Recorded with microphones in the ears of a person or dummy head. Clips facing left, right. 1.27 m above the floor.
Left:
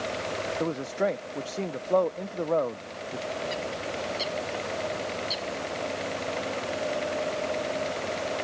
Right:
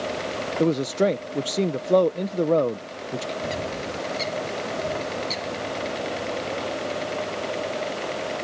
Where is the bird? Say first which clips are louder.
Right 3 dB; 30° right (ahead or behind).